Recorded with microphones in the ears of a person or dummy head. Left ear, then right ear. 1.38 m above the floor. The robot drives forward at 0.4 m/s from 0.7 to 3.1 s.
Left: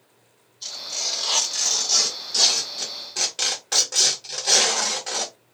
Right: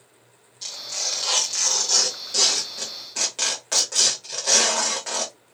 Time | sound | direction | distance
0.6 | tearing paper | 30° right (ahead or behind) | 1.3 m